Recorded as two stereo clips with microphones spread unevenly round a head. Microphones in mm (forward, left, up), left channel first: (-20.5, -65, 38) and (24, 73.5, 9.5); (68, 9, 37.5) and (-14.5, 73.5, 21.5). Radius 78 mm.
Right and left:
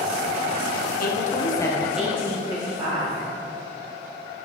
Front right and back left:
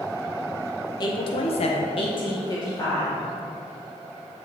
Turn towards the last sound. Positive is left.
turn(degrees=20)